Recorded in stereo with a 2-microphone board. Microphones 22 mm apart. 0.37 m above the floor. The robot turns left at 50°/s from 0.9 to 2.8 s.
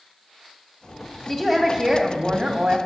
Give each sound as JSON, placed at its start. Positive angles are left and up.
{"t": 1.3, "sound": "a woman speaking", "azimuth_deg": 25, "distance_m": 1.9}